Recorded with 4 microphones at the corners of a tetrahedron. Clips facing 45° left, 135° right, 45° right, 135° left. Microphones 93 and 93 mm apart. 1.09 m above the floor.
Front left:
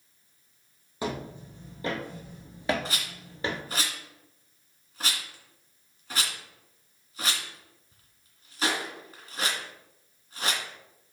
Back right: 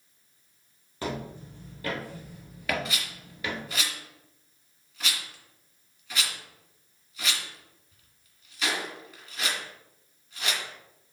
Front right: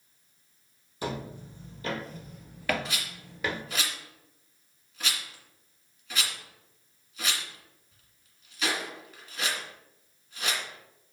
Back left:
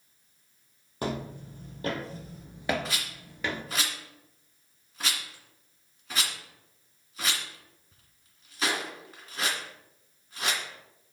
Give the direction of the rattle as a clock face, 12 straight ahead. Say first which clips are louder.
Even, back left 1 dB; 9 o'clock.